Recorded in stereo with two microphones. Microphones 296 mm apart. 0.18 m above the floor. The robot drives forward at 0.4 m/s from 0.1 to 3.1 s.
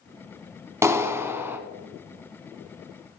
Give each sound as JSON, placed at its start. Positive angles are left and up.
{"t": 0.8, "sound": "a clap", "side_deg": -10, "distance_m": 0.9}